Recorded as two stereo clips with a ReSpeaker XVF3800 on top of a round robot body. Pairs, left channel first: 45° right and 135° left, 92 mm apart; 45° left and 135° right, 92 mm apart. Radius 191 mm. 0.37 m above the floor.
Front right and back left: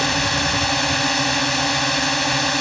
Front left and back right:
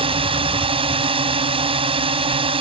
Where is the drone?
135° right.